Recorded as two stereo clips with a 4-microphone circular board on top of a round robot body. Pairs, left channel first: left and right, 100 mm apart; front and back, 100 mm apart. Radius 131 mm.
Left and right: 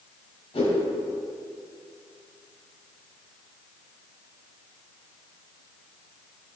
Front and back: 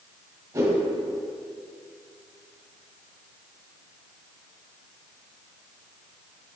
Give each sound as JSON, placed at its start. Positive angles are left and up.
{"t": 0.5, "sound": "a whoosh", "azimuth_deg": 125, "distance_m": 2.5}